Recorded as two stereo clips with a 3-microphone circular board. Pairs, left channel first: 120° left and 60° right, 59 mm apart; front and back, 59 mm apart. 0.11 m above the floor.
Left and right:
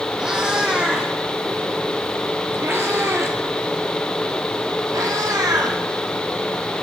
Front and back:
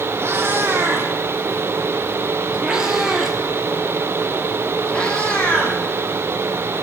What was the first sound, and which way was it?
A cat meowing, 140° right.